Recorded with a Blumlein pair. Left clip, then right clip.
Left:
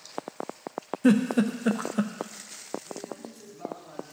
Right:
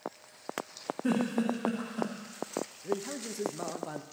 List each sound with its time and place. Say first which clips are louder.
1.0 s a giggle: left 7 dB; 30° left, 0.9 m
2.8 s a man speaking: right 4 dB; 40° right, 1.1 m